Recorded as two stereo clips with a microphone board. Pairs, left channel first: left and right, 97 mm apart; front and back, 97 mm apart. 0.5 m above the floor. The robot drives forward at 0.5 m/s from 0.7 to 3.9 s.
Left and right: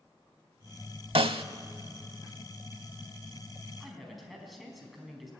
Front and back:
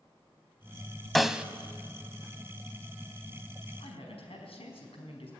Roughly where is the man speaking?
Ahead.